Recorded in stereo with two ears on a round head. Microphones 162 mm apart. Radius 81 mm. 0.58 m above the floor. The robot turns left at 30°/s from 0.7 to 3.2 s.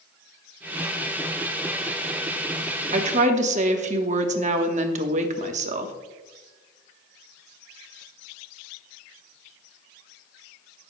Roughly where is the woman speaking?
Right.